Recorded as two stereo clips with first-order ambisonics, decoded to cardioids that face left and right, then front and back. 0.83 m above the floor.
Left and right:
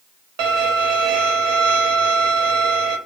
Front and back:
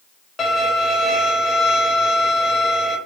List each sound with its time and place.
0.4 s a violin: 70° right, 1.2 m